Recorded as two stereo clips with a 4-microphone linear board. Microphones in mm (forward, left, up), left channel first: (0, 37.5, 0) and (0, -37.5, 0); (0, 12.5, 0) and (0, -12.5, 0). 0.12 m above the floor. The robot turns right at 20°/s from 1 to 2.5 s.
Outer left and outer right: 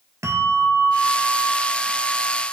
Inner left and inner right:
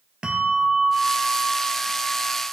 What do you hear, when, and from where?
0.2 s a bell: 40° right (ahead or behind), 1.5 m; by 2.4 s 15° right (ahead or behind), 1.5 m